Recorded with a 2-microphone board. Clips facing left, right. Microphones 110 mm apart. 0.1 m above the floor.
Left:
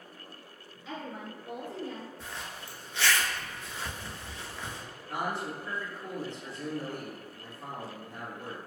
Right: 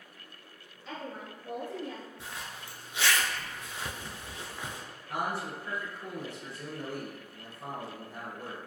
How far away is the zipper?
About 0.5 m.